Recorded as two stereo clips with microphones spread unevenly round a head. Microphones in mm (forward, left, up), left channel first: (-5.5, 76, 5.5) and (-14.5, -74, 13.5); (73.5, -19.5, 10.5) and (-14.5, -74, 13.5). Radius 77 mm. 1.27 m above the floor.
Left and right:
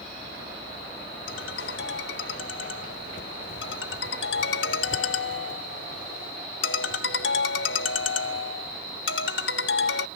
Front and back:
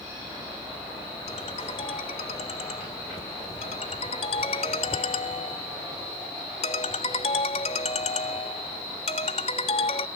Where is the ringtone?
85° left.